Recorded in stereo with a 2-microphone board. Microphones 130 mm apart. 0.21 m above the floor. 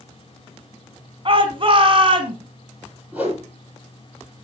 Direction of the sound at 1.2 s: 45° right (ahead or behind).